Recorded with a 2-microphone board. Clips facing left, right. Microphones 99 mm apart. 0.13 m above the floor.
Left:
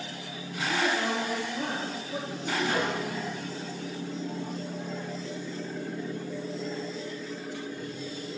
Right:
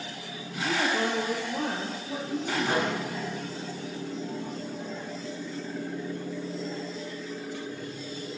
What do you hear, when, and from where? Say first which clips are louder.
0.6 s a woman speaking: right 1 dB; 55° right (ahead or behind), 2.5 m; by 3.5 s 75° right (ahead or behind), 5.5 m
2.6 s a microwave: right 1 dB; 50° right (ahead or behind), 5.5 m